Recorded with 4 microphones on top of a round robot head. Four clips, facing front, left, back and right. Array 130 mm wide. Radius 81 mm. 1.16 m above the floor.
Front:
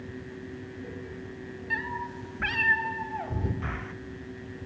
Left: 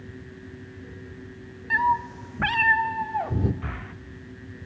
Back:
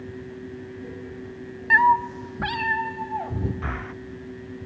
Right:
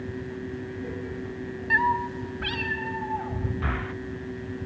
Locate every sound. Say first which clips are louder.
1.7 s a cat meowing: left 1 dB, back 17 dB; 175° right, 0.7 m; by 3.5 s 105° left, 1.9 m
3.6 s breathing: right 6 dB, back 4 dB; 135° right, 0.7 m